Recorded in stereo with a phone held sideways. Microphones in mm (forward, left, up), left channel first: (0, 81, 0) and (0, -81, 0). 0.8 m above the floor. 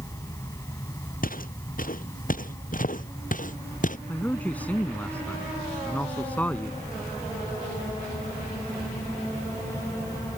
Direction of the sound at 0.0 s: 20° left (ahead or behind).